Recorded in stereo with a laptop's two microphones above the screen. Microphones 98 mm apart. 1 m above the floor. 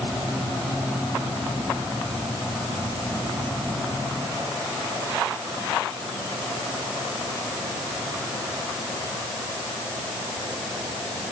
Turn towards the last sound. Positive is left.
No sound to turn to.